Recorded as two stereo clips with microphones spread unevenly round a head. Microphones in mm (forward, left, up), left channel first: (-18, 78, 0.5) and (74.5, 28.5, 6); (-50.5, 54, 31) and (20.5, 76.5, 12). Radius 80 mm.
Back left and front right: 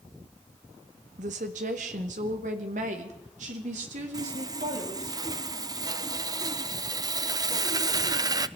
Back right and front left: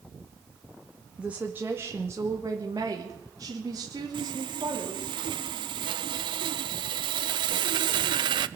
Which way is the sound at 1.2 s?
65° right.